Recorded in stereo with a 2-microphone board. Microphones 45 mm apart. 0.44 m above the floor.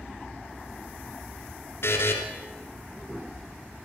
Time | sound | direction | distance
1.8 | a buzzer | 65° left (ahead or behind) | 2.0 m